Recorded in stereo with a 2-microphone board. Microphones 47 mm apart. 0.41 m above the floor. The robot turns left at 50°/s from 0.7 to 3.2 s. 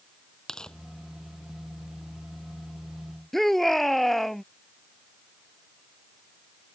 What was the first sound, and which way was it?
Tearing paper, 15° left (ahead or behind).